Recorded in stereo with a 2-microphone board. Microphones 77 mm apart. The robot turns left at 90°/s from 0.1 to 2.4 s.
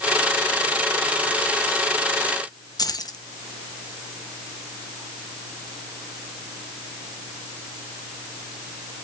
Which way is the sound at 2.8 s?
55° left (ahead or behind).